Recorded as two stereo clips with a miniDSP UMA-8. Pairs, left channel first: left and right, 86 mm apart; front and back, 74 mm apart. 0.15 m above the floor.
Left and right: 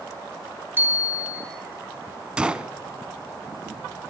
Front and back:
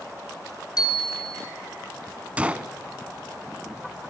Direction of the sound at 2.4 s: 145° right.